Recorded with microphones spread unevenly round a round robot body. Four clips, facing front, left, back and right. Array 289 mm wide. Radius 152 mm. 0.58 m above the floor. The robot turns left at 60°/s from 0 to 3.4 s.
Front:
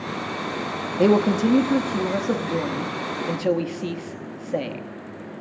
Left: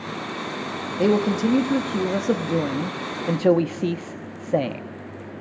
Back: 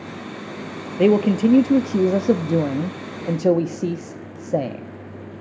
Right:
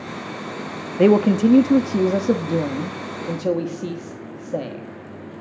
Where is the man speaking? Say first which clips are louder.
Right 5 dB, back 2 dB; 80° right, 1.3 m; by 4.8 s 135° left, 1.3 m.